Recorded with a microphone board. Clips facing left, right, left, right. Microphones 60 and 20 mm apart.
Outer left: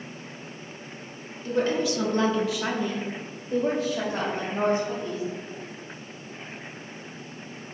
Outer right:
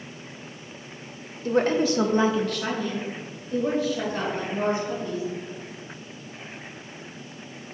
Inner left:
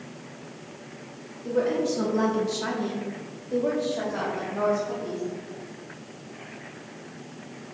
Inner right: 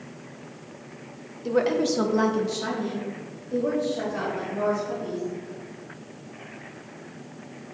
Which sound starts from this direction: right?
A woman speaking, at 1.4 s.